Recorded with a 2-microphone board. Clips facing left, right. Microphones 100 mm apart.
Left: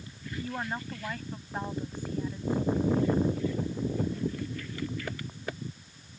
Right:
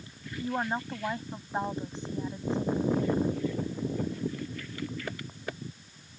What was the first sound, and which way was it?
A woman speaking, 25° right (ahead or behind).